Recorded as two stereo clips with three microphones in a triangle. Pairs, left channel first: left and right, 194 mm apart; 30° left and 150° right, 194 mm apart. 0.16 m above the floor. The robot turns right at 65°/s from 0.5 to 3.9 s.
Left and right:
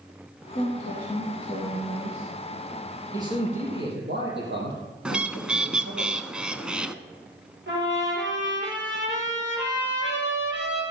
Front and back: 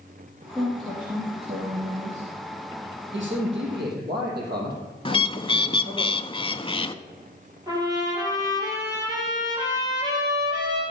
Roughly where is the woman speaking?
Left.